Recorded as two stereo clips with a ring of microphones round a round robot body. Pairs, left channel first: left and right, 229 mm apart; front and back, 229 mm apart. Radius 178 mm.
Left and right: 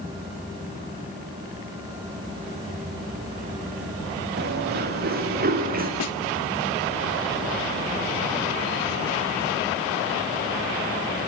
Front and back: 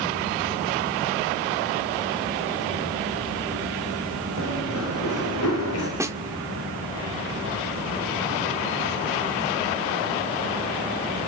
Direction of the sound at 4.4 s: 45° right.